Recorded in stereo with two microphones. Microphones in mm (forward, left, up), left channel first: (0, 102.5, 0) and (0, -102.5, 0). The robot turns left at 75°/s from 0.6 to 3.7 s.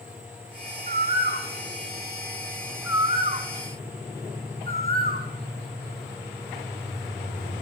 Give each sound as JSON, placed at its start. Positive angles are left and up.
{"t": 0.9, "sound": "a bird", "side_deg": 30, "distance_m": 1.0}